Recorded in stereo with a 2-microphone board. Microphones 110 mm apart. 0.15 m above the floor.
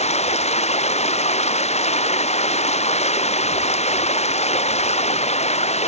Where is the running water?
85° left.